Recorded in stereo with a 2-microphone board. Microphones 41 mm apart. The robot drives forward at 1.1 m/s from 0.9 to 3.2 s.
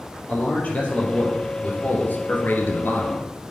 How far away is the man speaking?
About 3 m.